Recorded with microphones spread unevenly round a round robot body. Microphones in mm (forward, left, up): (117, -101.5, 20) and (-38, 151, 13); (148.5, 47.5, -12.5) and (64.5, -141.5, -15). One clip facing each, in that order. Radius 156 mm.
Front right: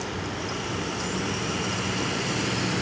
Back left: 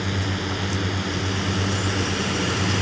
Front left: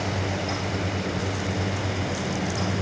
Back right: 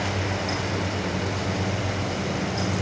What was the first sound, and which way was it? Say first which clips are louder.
A drone: back left 4 dB, even; 155° left.